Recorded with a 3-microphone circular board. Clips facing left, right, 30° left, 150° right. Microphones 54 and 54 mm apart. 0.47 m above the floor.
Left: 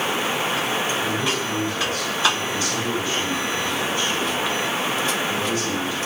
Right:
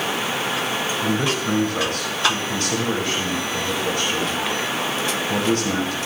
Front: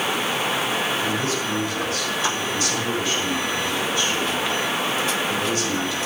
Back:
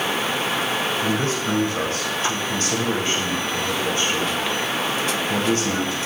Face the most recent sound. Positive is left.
turn(degrees=-100)